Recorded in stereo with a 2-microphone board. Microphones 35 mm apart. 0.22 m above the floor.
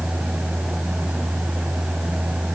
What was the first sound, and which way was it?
Only background noise.